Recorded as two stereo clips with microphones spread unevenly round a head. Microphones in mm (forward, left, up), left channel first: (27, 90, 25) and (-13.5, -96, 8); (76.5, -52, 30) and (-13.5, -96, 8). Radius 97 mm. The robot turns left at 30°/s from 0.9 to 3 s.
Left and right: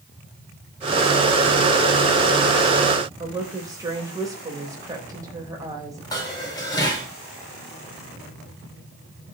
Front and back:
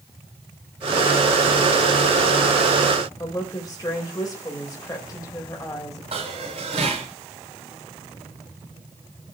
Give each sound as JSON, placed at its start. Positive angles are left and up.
{"t": 3.2, "sound": "a woman speaking", "azimuth_deg": -30, "distance_m": 4.0}
{"t": 6.1, "sound": "dishes clattering", "azimuth_deg": 150, "distance_m": 4.0}